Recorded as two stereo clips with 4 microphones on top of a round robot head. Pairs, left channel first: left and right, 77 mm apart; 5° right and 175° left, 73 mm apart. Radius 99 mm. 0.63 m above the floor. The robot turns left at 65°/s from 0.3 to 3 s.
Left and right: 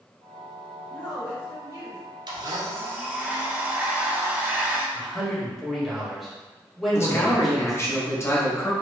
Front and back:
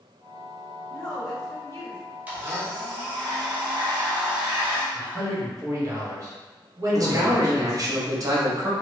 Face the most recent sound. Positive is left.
turn(degrees=145)